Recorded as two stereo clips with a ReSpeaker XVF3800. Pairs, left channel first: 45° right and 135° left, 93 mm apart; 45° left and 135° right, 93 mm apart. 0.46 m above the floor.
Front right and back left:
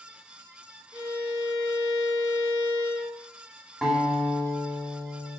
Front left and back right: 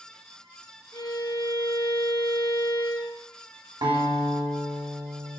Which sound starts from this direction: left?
A violin, at 0.9 s.